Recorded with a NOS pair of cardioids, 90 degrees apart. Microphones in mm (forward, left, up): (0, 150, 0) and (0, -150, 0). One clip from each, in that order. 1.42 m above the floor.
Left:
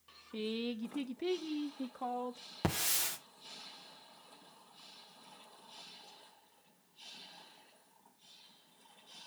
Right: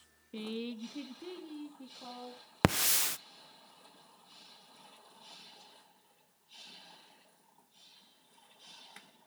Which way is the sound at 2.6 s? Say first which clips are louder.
Right 6 dB; 65° right.